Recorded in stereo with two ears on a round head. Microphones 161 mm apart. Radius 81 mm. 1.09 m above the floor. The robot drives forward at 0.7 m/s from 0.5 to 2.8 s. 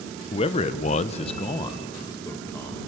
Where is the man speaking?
30° left (ahead or behind), 0.6 m; by 2.8 s 15° left (ahead or behind), 1.4 m.